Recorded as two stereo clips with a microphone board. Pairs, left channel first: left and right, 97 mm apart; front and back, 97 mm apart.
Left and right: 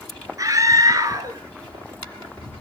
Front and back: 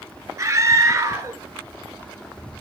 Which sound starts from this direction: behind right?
A scream, at 0.4 s.